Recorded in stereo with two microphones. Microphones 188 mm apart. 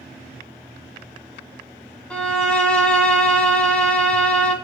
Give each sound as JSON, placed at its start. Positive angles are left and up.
{"t": 2.1, "sound": "a violin", "side_deg": 5, "distance_m": 2.0}